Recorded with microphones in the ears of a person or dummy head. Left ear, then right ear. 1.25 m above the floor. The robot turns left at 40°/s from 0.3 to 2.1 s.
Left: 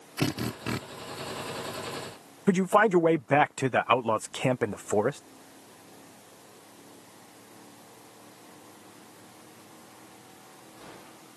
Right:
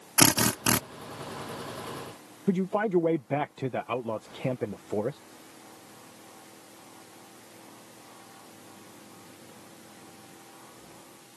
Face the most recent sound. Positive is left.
turn(degrees=50)  # may be behind; listen again after turning